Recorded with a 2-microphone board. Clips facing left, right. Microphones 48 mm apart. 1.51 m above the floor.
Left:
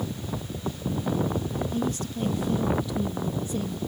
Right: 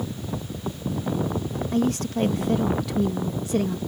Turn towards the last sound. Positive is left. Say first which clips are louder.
# right 5 dB
turn(degrees=-80)